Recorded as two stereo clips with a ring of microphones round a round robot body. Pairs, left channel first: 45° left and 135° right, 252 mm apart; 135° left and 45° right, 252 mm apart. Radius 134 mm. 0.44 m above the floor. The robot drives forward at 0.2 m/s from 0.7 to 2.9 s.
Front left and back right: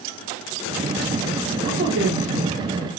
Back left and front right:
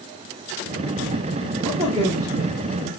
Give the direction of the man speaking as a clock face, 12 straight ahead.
4 o'clock.